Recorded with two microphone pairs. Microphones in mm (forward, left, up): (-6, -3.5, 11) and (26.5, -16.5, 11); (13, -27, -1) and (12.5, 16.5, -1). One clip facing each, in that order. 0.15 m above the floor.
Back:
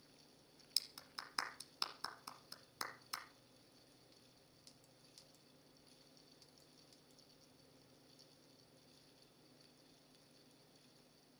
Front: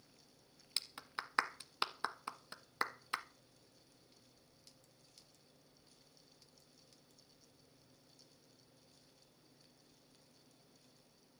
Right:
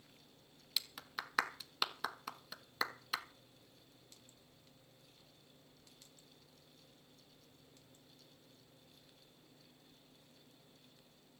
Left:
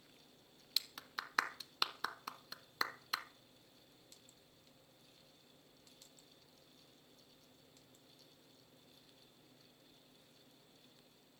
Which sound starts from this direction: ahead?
A clap, at 0.8 s.